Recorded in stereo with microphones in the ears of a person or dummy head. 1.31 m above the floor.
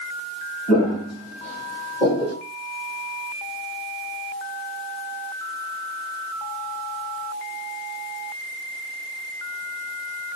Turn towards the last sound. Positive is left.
turn(degrees=-25)  # may be behind; listen again after turning